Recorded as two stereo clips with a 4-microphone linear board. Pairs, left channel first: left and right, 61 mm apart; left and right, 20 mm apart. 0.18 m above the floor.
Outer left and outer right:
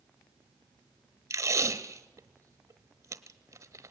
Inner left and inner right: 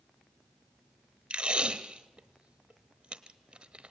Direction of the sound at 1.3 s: 60° right (ahead or behind).